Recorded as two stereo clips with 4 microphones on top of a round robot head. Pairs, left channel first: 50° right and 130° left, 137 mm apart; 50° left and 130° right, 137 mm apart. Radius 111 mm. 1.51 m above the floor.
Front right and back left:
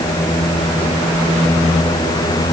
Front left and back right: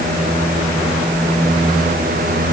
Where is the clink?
No clink in this recording.